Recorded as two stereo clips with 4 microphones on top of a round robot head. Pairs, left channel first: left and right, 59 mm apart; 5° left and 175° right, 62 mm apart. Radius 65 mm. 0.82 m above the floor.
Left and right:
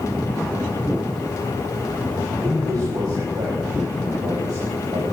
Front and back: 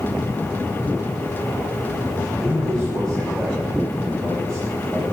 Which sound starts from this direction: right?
A man speaking, at 2.4 s.